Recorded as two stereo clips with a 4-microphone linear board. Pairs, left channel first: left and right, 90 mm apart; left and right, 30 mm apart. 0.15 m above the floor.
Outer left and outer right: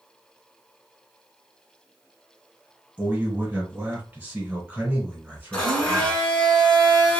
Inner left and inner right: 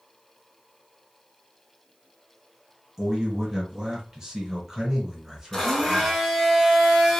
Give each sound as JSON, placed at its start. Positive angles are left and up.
{"t": 3.0, "sound": "a man speaking", "side_deg": -15, "distance_m": 2.0}
{"t": 5.5, "sound": "a blender", "side_deg": 10, "distance_m": 1.7}